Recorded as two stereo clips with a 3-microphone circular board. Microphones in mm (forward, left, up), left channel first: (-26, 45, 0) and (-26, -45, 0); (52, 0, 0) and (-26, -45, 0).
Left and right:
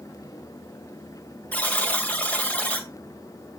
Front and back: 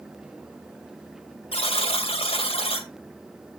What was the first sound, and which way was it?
A buzzer, 15° left.